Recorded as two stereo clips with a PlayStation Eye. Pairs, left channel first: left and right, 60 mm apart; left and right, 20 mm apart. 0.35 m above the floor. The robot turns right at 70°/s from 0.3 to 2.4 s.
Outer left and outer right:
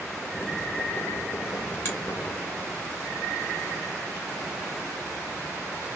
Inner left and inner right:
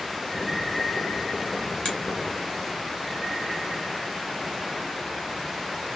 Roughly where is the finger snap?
Left.